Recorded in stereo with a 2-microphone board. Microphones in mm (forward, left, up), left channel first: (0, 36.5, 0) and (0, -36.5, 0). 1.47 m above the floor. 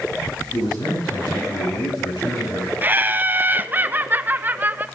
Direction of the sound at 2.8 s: 25° right (ahead or behind).